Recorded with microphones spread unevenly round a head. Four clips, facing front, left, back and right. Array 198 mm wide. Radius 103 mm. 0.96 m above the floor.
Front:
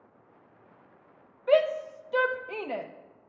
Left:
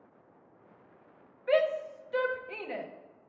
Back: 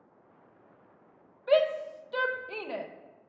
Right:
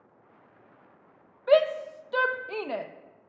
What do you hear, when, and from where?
1.5 s a shout: 65° right, 0.7 m